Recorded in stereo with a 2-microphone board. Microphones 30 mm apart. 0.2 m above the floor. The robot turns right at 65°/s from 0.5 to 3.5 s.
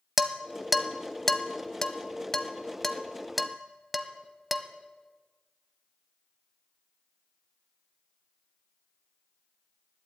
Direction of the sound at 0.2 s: 5° right (ahead or behind).